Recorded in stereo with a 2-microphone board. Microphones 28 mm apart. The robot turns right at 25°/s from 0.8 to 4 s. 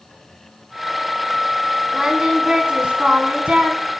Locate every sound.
1.9 s singing: 160° right, 1.1 m; by 3.8 s 110° right, 1.1 m